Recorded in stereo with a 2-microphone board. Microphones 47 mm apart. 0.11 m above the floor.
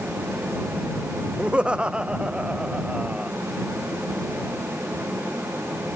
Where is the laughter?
20° right (ahead or behind).